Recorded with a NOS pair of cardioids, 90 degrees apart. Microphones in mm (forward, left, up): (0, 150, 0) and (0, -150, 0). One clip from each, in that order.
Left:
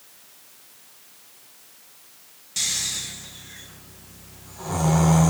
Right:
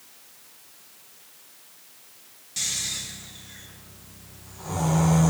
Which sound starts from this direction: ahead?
Snoring, at 2.6 s.